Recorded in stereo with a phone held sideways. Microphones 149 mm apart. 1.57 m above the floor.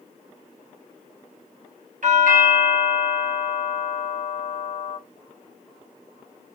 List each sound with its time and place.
2.0 s a doorbell: 60° right (ahead or behind), 1.3 m